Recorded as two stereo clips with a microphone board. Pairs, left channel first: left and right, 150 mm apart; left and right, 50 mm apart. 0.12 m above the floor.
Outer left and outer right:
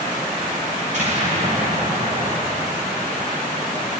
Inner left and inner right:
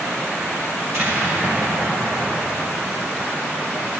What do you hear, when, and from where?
0.8 s an explosion: 55° right (ahead or behind), 7.5 m